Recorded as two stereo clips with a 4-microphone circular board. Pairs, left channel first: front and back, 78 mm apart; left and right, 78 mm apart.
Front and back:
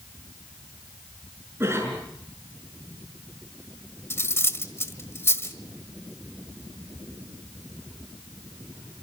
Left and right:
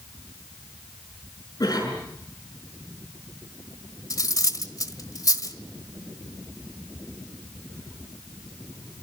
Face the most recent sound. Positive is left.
turn(degrees=55)